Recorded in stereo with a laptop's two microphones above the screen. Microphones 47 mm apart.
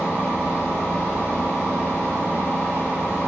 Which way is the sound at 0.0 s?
75° left (ahead or behind).